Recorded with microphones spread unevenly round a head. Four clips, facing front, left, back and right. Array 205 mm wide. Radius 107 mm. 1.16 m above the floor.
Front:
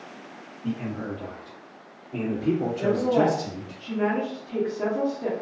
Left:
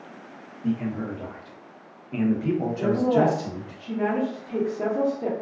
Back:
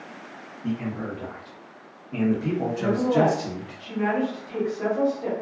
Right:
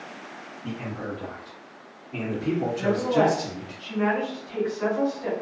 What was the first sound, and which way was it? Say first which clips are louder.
A man speaking: left 6 dB, back 1 dB; 100° left.